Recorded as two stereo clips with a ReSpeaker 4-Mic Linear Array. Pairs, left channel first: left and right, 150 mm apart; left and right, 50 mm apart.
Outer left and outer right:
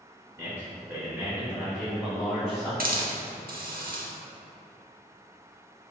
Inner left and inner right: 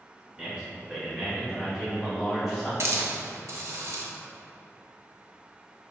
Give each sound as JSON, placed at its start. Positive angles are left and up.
{"t": 0.4, "sound": "a man speaking", "side_deg": -15, "distance_m": 1.9}
{"t": 2.8, "sound": "a hiss", "side_deg": -70, "distance_m": 0.7}